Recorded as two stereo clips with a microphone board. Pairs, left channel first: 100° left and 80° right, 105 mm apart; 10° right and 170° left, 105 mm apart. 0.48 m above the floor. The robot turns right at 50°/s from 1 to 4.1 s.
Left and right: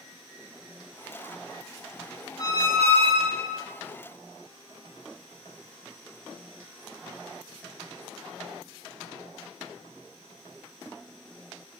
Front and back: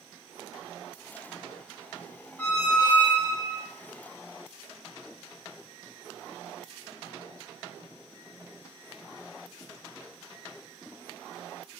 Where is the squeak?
85° right, 0.5 m; by 3.6 s 20° right, 0.5 m.